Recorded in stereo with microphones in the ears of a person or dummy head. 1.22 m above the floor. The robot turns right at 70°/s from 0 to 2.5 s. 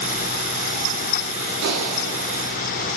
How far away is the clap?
About 8 m.